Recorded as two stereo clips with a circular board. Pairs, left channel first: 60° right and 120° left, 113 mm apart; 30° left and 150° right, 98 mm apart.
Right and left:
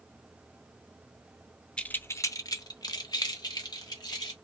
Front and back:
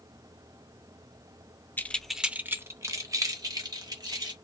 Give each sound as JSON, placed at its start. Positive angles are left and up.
{"t": 1.8, "sound": "keys jangling", "azimuth_deg": 5, "distance_m": 0.6}